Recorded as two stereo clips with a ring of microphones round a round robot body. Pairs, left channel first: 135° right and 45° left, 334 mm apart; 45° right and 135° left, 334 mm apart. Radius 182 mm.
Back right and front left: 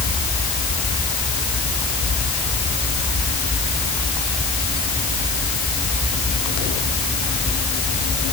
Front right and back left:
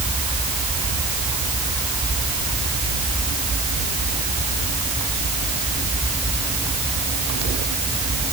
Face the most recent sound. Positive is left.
No sound to turn to.